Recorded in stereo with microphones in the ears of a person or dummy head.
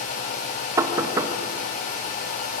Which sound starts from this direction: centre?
Knocking, at 0.8 s.